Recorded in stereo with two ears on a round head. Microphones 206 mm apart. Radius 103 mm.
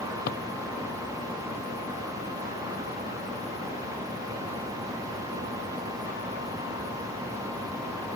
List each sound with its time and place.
0.3 s a drawer: 45° left (ahead or behind)